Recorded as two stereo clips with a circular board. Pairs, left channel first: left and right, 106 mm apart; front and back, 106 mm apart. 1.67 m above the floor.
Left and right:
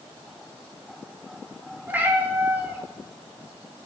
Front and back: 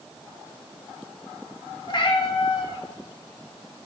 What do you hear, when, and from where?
1.9 s a cat meowing: 20° right, 1.5 m